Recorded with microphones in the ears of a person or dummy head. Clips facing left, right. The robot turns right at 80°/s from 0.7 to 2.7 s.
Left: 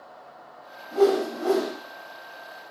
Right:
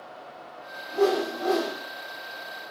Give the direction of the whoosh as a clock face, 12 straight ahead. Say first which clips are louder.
Left 3 dB; 10 o'clock.